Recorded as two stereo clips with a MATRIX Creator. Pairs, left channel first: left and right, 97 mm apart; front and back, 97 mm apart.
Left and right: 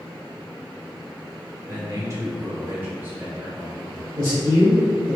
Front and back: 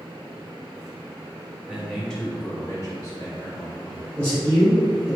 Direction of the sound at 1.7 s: 100° right.